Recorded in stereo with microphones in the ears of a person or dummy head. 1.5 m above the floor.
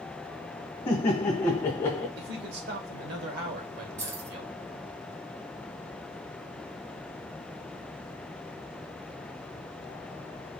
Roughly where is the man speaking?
Right.